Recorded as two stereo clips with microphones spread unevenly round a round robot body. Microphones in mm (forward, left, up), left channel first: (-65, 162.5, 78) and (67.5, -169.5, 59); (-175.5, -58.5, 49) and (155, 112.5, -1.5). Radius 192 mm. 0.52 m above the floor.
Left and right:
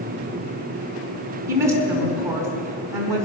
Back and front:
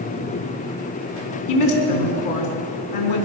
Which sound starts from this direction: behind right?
A woman speaking, at 1.5 s.